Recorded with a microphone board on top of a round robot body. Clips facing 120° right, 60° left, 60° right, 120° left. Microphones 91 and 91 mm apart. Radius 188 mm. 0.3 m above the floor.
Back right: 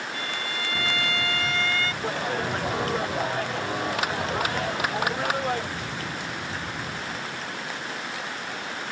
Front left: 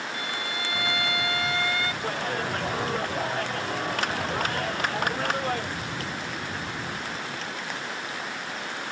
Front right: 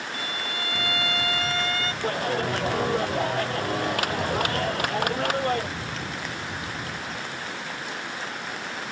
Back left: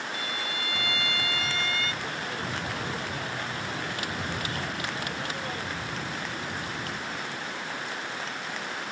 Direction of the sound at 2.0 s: 35° right.